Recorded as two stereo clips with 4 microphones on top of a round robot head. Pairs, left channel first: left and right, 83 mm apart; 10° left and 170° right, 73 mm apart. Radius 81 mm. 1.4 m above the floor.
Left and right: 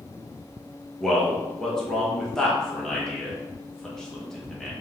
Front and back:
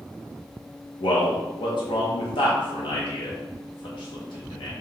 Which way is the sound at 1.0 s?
5° left.